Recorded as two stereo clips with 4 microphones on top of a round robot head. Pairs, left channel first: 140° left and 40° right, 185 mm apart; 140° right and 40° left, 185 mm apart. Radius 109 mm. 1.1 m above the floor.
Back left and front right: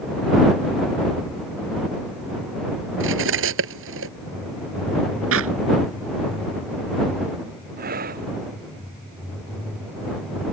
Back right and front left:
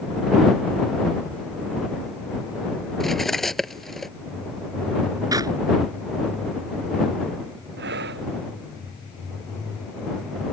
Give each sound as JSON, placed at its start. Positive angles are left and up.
{"t": 3.0, "sound": "cutlery clinking", "azimuth_deg": -50}
{"t": 5.3, "sound": "a clap", "azimuth_deg": -35}
{"t": 7.8, "sound": "breathing", "azimuth_deg": 5}